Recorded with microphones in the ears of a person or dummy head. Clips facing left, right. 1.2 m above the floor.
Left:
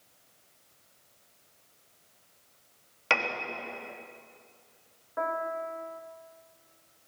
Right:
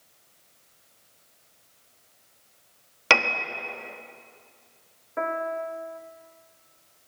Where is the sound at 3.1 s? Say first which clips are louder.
Right 6 dB; 70° right (ahead or behind), 1.3 m.